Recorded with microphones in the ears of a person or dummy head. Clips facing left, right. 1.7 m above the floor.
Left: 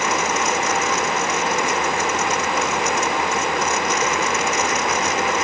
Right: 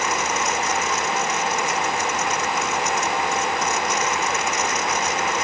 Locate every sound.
Only background noise.